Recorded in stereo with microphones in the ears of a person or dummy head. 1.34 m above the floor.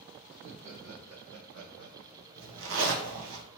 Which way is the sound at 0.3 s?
60° right (ahead or behind).